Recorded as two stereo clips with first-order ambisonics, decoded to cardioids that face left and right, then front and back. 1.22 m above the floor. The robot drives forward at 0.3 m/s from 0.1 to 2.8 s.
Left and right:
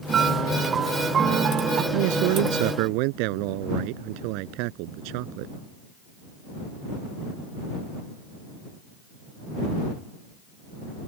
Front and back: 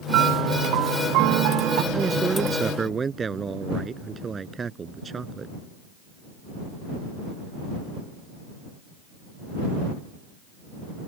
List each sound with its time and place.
0.1 s a piano: 150° right; by 1.8 s 155° right
1.9 s a man speaking: 105° right